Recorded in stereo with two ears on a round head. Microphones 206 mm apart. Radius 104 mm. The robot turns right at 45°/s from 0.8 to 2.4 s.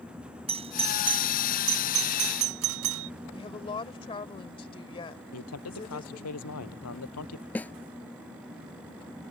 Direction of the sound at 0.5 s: 25° right (ahead or behind).